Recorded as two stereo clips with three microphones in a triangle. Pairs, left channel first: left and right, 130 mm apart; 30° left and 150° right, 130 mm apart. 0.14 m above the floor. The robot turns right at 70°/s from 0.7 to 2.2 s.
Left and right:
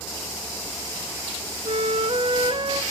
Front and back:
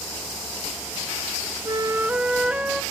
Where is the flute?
110° right, 0.5 m; by 2.8 s 70° right, 0.5 m.